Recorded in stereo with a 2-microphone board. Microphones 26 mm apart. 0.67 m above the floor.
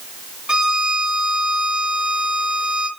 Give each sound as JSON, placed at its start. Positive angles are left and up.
{"t": 0.5, "sound": "a violin", "side_deg": -35, "distance_m": 0.5}